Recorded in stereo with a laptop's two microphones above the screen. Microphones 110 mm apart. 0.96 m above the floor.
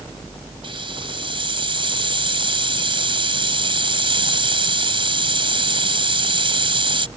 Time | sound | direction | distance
0.6 | a hiss | 50° right (ahead or behind) | ?